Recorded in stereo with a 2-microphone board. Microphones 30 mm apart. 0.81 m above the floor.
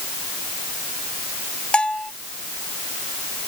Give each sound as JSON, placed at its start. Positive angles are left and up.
{"t": 1.7, "sound": "a bell", "side_deg": 30}